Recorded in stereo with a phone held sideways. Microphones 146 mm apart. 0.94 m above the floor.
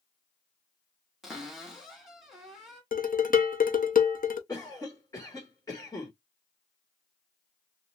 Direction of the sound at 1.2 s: Centre (ahead or behind).